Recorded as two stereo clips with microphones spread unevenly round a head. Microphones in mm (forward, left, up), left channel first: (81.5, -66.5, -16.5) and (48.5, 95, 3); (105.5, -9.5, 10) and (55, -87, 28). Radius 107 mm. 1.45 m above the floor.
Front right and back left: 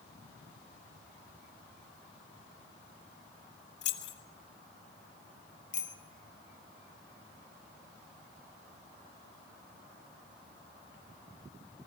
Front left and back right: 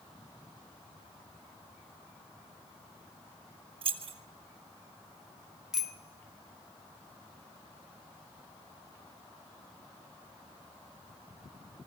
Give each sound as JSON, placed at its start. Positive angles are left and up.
{"t": 3.8, "sound": "keys jangling", "azimuth_deg": -115, "distance_m": 1.6}
{"t": 5.7, "sound": "a bicycle bell", "azimuth_deg": -40, "distance_m": 2.5}